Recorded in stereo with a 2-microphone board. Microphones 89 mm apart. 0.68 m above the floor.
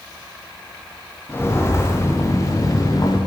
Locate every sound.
1.3 s footsteps: 25° left (ahead or behind), 6 m; by 3.2 s 45° left (ahead or behind), 6 m